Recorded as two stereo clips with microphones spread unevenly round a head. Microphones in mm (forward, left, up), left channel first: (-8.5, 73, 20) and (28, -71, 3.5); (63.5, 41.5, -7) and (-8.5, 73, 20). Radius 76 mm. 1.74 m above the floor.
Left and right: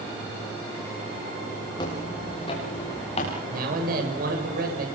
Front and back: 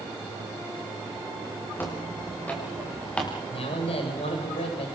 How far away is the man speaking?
About 7.5 m.